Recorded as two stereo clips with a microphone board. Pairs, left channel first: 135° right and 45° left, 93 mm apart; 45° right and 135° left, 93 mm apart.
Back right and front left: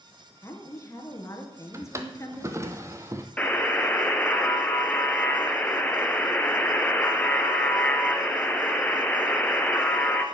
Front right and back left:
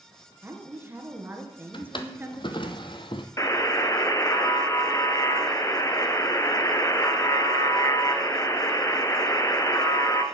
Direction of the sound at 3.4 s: 70° right.